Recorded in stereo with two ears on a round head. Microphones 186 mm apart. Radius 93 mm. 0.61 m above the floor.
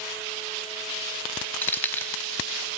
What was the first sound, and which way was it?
Keys jangling, 10° left (ahead or behind).